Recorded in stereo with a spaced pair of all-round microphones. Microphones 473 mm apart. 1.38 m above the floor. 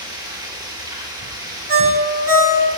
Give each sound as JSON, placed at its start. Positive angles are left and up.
{"t": 0.0, "sound": "running water", "side_deg": -10, "distance_m": 3.0}
{"t": 1.7, "sound": "a ringtone", "side_deg": -60, "distance_m": 2.5}